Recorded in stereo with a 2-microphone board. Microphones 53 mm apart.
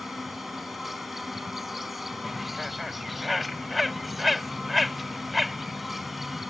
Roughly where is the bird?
Centre.